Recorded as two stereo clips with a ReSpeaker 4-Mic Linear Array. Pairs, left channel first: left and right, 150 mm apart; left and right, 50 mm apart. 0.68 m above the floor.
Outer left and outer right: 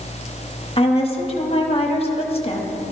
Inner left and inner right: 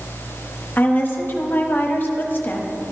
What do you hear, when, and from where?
0.8 s a woman speaking: 40° left (ahead or behind), 0.9 m